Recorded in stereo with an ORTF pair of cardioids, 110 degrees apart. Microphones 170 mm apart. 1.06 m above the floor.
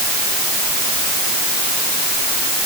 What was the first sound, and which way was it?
Only background noise.